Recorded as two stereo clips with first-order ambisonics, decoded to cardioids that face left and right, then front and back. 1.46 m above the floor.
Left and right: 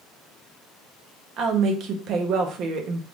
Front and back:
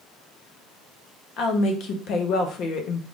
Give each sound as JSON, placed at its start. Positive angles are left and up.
{"t": 1.4, "sound": "a woman speaking", "azimuth_deg": -45, "distance_m": 0.7}